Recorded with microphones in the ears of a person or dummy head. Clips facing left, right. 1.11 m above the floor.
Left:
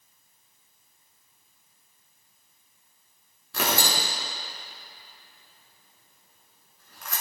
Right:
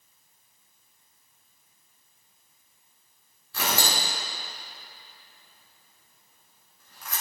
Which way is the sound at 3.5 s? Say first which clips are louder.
Left 2 dB; 60° left (ahead or behind).